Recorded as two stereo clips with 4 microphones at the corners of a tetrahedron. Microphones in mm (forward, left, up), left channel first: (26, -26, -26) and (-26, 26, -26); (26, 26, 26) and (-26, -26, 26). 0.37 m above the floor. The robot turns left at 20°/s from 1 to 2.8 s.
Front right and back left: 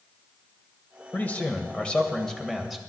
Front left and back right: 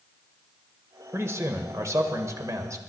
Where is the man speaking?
100° right, 1.5 m; by 2.8 s 135° right, 1.5 m.